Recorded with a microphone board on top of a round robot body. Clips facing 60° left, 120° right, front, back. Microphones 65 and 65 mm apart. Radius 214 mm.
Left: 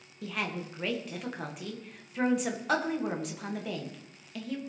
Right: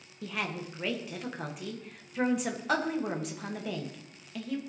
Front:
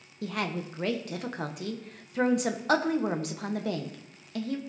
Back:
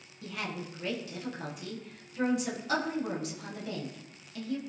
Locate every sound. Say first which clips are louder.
0.2 s a woman speaking: left 1 dB, front 6 dB; 30° right, 1.3 m